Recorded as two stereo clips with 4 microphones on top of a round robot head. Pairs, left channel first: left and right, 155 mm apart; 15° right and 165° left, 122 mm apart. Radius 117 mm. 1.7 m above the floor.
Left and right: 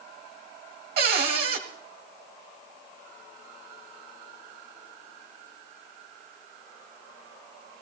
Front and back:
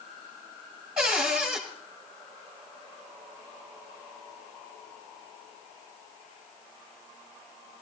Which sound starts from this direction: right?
A cupboard door, at 1.0 s.